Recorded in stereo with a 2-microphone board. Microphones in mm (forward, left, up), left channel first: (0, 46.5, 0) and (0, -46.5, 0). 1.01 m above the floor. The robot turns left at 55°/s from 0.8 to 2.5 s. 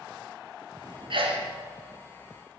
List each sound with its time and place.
1.1 s a sneeze: 65° right (ahead or behind), 0.7 m; by 1.5 s 70° right (ahead or behind), 0.7 m